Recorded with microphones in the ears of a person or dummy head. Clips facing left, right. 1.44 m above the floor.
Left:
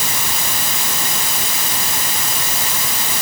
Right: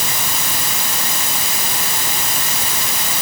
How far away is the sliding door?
I don't hear a sliding door.